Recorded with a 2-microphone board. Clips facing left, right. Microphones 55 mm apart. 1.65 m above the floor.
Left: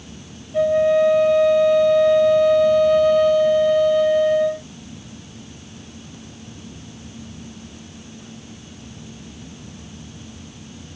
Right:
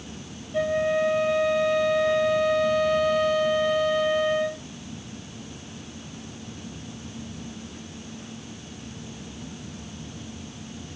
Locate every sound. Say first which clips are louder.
0.5 s a flute: left 8 dB; 5° right (ahead or behind), 0.8 m